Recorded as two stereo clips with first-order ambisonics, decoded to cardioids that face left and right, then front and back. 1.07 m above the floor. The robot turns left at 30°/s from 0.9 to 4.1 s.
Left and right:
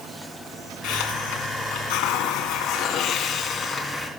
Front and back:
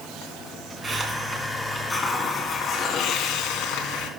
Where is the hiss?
110° left, 2 m; by 4.1 s 15° left, 2 m.